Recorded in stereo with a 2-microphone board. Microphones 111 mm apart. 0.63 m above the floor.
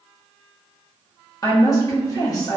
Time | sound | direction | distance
1.4 | a woman speaking | 35° left (ahead or behind) | 0.7 m